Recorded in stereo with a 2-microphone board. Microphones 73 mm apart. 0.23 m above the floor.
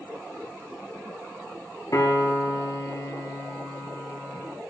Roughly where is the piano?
Left.